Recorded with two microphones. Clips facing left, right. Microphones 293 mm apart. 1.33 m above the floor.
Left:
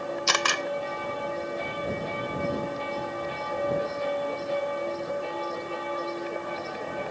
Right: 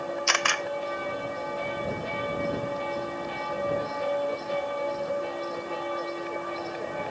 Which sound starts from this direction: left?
A camera shutter, at 0.3 s.